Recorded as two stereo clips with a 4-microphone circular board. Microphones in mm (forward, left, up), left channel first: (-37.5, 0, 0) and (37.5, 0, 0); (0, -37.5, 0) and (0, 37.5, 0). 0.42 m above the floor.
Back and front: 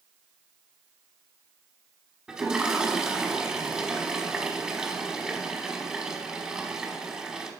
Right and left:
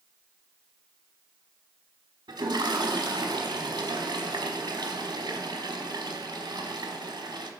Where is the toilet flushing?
80° left, 1.1 m.